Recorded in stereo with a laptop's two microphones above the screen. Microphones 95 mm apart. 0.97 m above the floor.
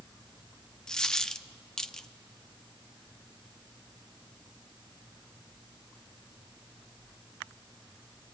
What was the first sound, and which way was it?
A dropped coin, 5° left (ahead or behind).